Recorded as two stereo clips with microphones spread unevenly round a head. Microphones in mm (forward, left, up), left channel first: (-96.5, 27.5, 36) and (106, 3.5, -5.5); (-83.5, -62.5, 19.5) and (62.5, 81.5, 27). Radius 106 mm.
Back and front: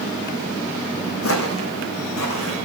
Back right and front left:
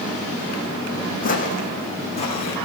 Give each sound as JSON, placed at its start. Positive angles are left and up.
{"t": 1.2, "sound": "footsteps", "azimuth_deg": 175, "distance_m": 3.0}